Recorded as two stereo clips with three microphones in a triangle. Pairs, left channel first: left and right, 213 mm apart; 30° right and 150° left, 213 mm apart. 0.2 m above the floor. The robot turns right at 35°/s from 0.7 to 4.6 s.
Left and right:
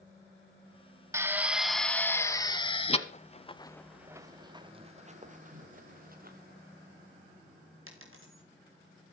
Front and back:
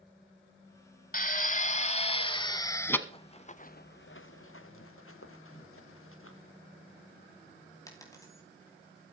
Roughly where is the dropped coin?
Right.